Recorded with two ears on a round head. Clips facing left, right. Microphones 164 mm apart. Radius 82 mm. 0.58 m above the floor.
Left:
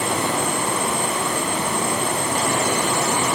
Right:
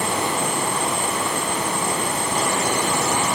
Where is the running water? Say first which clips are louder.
Left 1 dB; 80° left, 4 m.